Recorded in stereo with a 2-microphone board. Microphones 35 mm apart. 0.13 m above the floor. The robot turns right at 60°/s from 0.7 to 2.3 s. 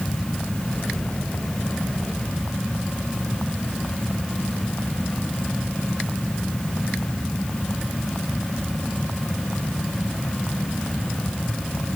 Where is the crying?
I don't hear crying.